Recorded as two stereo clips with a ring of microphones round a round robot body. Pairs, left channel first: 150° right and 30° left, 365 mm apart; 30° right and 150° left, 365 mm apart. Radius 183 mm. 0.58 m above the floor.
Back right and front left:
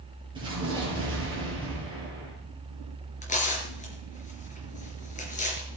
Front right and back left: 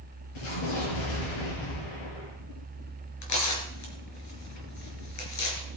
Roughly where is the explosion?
Ahead right.